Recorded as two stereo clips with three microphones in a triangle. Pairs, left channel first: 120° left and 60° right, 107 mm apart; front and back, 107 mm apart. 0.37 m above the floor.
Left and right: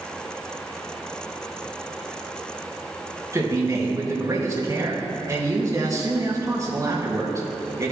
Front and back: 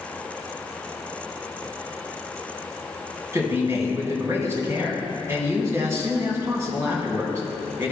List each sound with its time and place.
3.3 s a man speaking: 120° right, 2.5 m